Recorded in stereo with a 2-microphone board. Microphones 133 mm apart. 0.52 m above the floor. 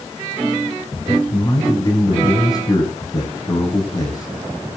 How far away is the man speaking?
About 4 m.